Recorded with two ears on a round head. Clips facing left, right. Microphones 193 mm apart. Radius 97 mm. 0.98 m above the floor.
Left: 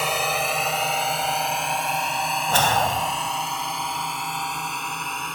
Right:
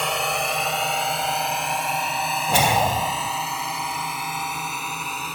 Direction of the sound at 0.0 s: Centre (ahead or behind).